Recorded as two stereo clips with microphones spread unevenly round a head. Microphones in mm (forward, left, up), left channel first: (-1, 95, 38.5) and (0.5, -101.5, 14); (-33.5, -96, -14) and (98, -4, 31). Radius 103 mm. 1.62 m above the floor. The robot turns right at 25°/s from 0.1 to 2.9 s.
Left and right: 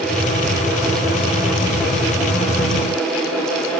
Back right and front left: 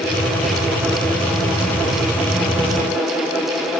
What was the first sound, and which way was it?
Only background noise.